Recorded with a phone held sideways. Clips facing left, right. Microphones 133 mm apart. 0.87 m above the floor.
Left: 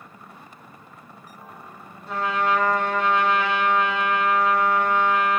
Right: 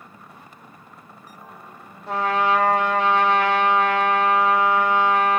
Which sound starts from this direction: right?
A trumpet, at 2.1 s.